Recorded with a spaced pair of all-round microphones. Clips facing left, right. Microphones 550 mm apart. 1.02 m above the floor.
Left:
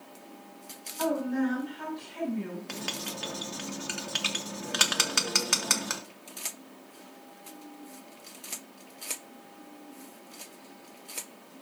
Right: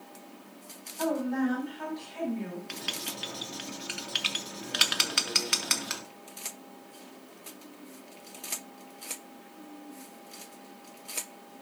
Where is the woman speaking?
30° left (ahead or behind), 6.5 m; by 2.6 s 25° left (ahead or behind), 7.5 m.